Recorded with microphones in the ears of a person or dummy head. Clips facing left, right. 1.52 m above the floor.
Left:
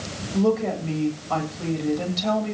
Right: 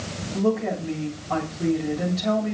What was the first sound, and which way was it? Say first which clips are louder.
A woman speaking: left 2 dB; 40° left (ahead or behind).